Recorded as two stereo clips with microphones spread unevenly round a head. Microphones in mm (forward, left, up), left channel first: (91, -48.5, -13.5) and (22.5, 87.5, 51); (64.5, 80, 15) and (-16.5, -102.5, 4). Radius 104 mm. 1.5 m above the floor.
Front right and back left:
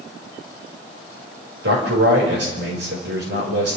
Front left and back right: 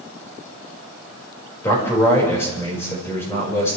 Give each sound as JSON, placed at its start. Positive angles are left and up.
{"t": 1.6, "sound": "a man speaking", "azimuth_deg": 145, "distance_m": 5.0}